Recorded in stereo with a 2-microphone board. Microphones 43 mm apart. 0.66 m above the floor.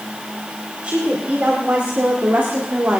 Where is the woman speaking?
35° right (ahead or behind), 3 m; by 3.0 s 50° right (ahead or behind), 1.8 m.